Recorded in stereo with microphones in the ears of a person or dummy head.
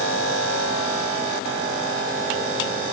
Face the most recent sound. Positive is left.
No sound to turn to.